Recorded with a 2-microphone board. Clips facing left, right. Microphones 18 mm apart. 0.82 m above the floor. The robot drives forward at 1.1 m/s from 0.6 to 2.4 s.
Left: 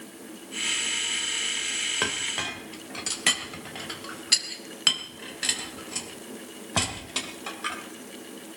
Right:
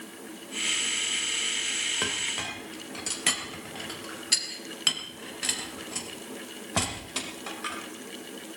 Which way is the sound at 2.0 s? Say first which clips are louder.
Left 2 dB; 15° left (ahead or behind).